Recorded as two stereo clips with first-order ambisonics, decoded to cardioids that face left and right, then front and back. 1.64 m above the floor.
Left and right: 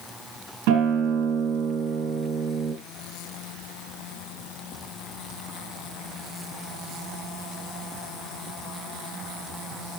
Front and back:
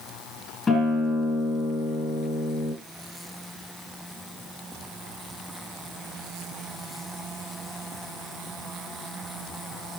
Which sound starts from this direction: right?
A guitar, at 0.7 s.